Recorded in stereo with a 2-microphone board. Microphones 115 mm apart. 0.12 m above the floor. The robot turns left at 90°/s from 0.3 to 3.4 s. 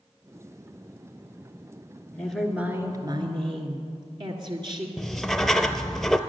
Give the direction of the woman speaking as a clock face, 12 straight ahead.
11 o'clock.